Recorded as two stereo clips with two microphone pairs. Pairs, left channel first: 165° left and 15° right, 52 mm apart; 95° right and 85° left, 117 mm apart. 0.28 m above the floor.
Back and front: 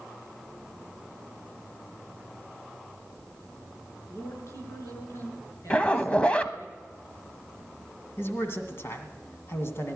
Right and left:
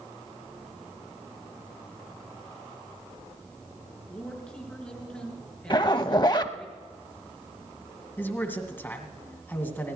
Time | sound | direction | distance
4.1 | a man speaking | 175° right | 4.5 m
5.7 | a zipper | 130° right | 0.7 m
8.2 | a man speaking | 160° right | 2 m